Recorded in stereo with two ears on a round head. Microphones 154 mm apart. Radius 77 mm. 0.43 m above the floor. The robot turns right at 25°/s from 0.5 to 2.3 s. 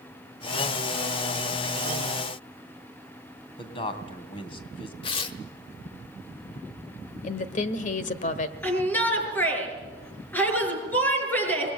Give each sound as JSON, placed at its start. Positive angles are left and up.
{"t": 3.6, "sound": "a man speaking", "side_deg": 30, "distance_m": 2.5}
{"t": 5.0, "sound": "tearing paper", "side_deg": 30, "distance_m": 1.3}
{"t": 7.2, "sound": "a woman speaking", "side_deg": 45, "distance_m": 1.4}
{"t": 8.6, "sound": "a shout", "side_deg": 10, "distance_m": 7.0}